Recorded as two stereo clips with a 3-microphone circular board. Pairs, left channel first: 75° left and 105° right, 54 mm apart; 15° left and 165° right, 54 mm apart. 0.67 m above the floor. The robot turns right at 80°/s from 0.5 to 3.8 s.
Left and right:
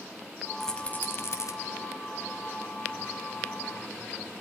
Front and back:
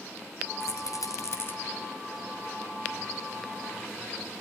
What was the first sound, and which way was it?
A rattle, 10° right.